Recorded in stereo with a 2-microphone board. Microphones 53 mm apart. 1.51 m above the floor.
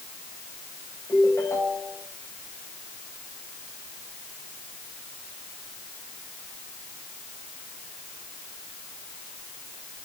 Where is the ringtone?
70° left (ahead or behind), 5.5 m.